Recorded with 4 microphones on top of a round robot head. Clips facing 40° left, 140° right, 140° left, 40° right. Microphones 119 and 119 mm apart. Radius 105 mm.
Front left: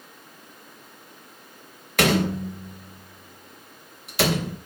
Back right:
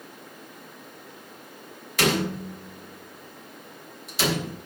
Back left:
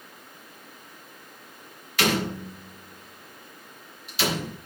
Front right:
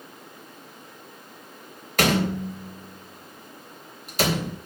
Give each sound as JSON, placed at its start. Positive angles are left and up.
{"t": 2.0, "sound": "a door slam", "azimuth_deg": 5, "distance_m": 3.5}